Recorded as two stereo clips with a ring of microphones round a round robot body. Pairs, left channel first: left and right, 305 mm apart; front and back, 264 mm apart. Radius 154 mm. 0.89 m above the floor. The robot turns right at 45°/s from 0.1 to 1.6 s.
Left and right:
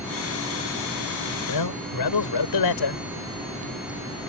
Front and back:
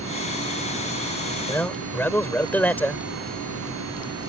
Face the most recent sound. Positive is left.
turn(degrees=85)